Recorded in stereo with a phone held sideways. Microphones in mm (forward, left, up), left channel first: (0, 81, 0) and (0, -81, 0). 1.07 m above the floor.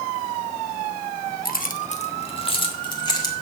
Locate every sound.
1.4 s keys jangling: 65° left (ahead or behind), 0.8 m; by 3.3 s 25° left (ahead or behind), 2 m